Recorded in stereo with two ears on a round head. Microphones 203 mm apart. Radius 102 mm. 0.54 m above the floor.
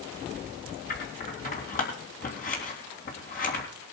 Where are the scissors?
40° left (ahead or behind), 3.5 m.